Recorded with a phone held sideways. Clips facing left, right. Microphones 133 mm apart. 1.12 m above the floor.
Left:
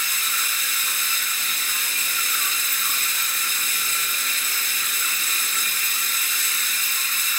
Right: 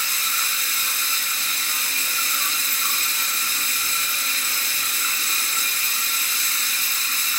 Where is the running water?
35° right (ahead or behind), 3.5 m.